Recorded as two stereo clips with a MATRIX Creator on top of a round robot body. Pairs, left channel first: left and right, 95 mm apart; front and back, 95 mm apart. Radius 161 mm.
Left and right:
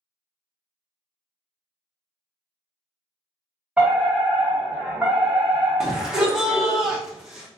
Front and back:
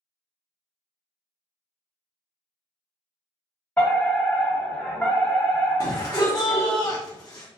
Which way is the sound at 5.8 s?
10° right.